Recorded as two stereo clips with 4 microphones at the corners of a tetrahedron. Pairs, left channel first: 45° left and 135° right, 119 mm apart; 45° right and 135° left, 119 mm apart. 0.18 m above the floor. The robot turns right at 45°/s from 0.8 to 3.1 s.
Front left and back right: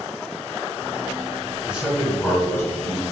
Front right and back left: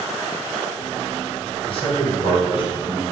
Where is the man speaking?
55° right, 1.6 m; by 3.0 s 5° left, 1.6 m.